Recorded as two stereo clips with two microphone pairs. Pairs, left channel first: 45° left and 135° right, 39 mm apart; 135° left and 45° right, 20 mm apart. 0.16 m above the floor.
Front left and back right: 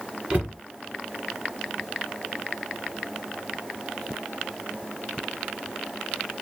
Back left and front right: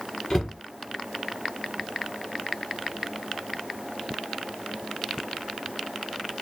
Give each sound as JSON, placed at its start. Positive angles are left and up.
{"t": 0.3, "sound": "a cupboard door", "azimuth_deg": 180, "distance_m": 1.5}